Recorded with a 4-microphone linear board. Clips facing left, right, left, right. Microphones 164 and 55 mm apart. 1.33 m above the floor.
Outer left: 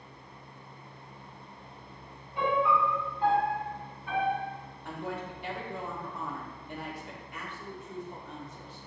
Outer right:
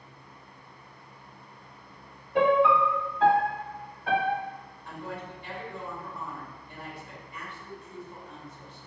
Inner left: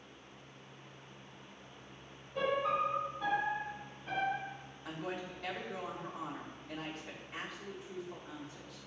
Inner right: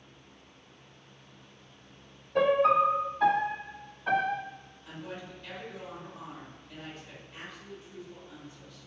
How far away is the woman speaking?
About 3 m.